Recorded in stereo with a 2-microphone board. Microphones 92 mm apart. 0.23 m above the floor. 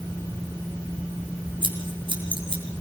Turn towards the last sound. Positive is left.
turn(degrees=-65)  # may be behind; listen again after turning